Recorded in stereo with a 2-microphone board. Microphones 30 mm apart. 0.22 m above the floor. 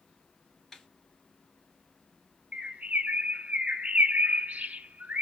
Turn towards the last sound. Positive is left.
turn(degrees=-70)  # may be behind; listen again after turning